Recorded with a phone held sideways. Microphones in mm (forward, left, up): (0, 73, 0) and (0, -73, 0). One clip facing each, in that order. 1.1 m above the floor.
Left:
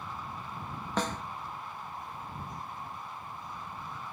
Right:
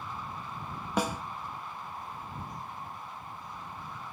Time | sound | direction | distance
1.0 | a snare drum | 10° right (ahead or behind) | ?